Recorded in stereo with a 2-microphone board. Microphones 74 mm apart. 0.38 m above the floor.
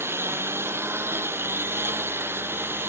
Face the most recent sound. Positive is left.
turn(degrees=-30)  # may be behind; listen again after turning